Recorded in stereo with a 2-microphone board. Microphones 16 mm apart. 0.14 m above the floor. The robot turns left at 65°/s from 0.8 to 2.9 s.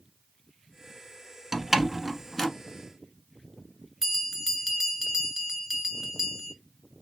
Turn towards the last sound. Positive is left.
turn(degrees=-15)  # may be behind; listen again after turning